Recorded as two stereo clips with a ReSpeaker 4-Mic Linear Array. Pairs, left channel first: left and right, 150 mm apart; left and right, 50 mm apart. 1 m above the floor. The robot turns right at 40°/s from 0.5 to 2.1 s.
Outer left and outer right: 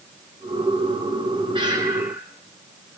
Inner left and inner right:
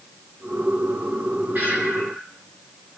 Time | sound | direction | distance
1.6 | breathing | 35° right (ahead or behind) | 4.5 m